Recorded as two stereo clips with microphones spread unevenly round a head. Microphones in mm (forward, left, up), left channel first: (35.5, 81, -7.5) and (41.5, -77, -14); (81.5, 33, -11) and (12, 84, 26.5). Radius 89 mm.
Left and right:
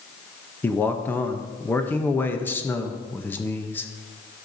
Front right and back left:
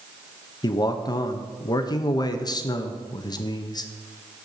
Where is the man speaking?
15° left, 0.7 m.